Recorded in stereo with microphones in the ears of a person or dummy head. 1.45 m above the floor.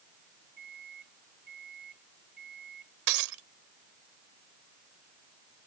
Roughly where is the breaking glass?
Right.